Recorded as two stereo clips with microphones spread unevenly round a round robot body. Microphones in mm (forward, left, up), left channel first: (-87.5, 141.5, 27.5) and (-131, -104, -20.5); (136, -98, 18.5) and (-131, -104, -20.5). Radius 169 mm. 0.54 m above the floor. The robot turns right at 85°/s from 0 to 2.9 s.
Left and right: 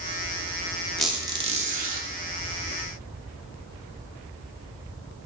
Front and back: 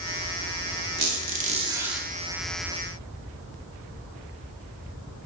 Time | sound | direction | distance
1.0 | a squeak | straight behind | 0.9 m